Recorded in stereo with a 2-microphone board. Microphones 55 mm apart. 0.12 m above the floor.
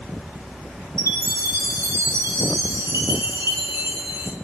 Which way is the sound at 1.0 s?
60° right (ahead or behind).